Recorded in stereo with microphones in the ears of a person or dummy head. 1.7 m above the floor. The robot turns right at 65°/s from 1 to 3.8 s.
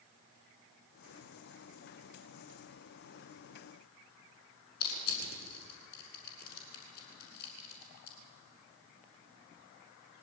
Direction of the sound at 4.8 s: 55° left (ahead or behind).